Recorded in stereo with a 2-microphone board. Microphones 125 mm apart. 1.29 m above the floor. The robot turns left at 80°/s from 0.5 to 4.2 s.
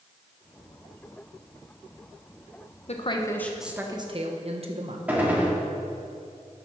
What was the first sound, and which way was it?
A woman speaking, 55° left.